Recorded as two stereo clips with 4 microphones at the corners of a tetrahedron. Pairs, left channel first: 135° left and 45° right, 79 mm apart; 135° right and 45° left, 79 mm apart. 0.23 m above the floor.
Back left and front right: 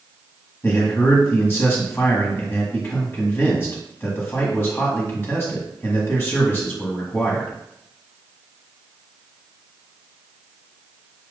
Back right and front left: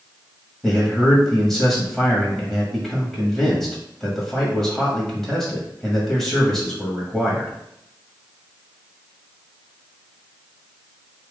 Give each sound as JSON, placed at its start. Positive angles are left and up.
{"t": 0.6, "sound": "a man speaking", "azimuth_deg": 145, "distance_m": 1.3}